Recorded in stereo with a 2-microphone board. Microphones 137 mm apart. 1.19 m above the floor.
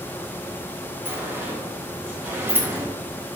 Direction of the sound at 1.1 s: 15° right (ahead or behind).